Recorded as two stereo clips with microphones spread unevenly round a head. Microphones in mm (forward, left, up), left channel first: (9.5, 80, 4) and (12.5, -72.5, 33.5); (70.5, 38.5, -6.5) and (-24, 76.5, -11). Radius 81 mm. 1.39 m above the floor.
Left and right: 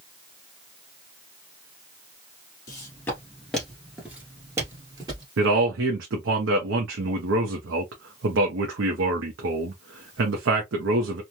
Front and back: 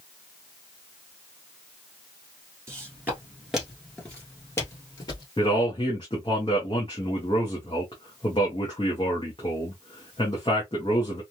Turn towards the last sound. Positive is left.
turn(degrees=-90)